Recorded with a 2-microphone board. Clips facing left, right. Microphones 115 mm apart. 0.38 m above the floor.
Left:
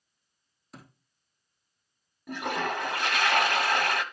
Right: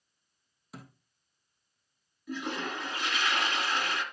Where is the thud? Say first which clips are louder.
Right 2 dB; 5° right (ahead or behind), 2.5 m.